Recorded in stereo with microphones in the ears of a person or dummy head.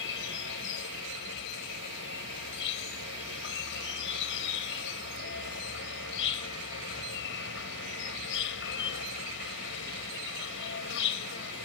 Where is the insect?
65° left (ahead or behind).